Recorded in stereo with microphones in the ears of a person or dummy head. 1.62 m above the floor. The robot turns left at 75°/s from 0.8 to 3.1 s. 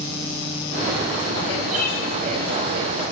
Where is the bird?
85° right, 7.5 m; by 2.0 s 65° right (ahead or behind), 7.5 m.